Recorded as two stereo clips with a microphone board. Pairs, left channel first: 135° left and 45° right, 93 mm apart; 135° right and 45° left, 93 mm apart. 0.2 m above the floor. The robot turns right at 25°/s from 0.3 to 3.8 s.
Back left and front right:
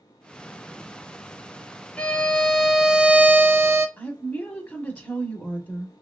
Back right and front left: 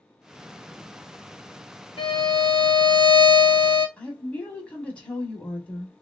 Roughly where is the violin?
Behind right.